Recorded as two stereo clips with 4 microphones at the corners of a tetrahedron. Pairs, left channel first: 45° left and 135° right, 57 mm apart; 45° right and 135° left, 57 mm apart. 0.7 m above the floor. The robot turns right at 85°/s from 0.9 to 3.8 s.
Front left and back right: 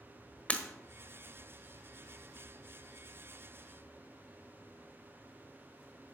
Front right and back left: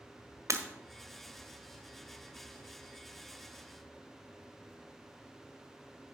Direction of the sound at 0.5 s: 110° left.